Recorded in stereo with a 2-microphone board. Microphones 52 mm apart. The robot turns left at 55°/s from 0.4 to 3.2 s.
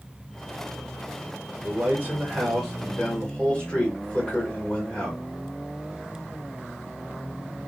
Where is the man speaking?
120° right, 1.4 m; by 5.2 s 155° left, 1.4 m.